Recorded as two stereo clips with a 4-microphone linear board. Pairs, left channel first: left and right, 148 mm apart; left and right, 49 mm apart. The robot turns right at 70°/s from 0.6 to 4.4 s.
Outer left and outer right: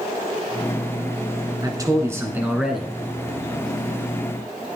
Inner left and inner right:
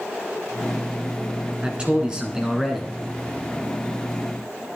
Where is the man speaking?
25° right (ahead or behind), 1.2 m; by 2.9 s 5° left (ahead or behind), 1.2 m.